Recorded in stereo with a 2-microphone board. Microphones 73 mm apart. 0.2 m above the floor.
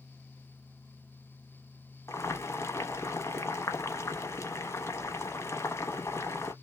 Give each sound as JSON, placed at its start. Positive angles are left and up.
{"t": 2.1, "sound": "boiling", "side_deg": 40, "distance_m": 0.9}